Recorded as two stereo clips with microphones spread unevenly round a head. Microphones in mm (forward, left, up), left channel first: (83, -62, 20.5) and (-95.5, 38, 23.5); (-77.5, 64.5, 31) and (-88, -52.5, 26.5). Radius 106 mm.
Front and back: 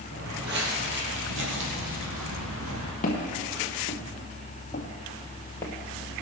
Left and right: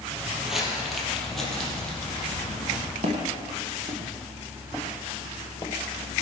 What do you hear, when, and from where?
0.1 s footsteps: straight behind, 2.5 m; by 2.9 s 165° left, 4 m
3.0 s footsteps: 70° right, 2 m; by 5.7 s 40° left, 1.8 m